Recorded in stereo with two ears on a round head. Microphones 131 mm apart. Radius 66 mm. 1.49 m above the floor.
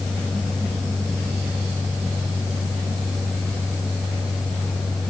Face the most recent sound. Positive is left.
No sound to turn to.